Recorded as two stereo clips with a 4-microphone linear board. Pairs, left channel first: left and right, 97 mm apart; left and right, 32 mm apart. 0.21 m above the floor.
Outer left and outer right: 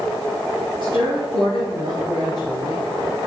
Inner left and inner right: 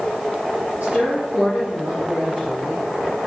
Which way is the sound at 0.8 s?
50° right (ahead or behind).